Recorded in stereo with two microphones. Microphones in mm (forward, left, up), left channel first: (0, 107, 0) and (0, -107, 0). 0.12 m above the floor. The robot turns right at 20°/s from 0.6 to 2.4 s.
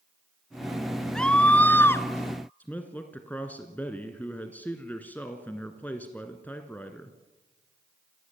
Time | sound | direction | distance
1.1 | a scream | 5° left (ahead or behind) | 1.2 m
2.6 | a man speaking | 10° left (ahead or behind) | 1.7 m